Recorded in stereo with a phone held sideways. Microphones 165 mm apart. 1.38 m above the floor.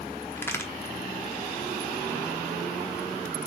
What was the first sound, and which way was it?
A crack, 15° left (ahead or behind).